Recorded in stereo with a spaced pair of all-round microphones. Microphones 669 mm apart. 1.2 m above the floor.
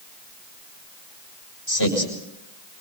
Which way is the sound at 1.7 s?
25° left (ahead or behind).